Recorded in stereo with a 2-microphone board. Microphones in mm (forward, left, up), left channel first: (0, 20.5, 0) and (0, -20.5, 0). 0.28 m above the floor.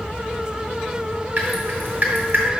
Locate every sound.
1.4 s dripping: 50° right (ahead or behind), 2 m